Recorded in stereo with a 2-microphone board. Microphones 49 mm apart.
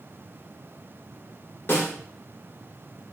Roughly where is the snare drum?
Left.